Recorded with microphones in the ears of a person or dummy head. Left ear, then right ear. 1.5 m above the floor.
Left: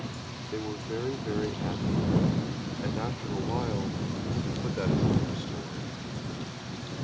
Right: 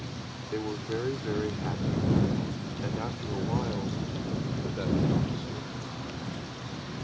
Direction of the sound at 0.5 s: 20° right (ahead or behind).